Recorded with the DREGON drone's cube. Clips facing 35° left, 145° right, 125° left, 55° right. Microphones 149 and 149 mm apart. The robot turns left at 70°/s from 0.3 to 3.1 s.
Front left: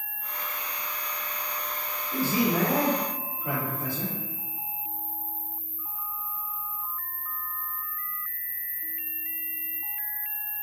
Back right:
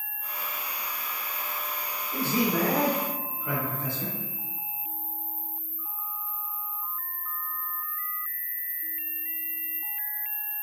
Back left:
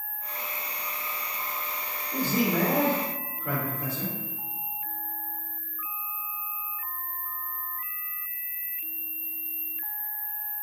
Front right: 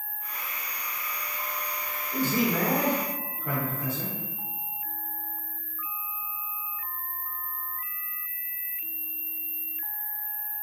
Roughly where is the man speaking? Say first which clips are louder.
Front left 1 dB, even; ahead left.